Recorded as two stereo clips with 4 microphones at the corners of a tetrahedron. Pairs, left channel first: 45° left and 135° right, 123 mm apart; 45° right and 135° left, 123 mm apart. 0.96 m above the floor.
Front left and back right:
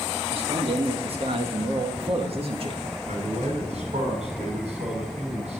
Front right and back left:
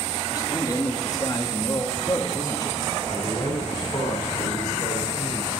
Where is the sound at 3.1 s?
105° right, 7.5 m.